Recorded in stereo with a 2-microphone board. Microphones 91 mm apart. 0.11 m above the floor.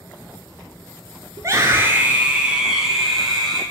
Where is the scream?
40° right (ahead or behind), 1.4 m; by 3.6 s centre (ahead or behind), 3.5 m.